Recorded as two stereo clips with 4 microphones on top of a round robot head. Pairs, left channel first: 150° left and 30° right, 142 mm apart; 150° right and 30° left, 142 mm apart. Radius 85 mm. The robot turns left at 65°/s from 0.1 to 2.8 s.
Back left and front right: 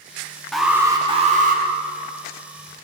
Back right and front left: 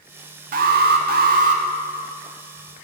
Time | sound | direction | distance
0.5 | an alarm | 60° left | 1.0 m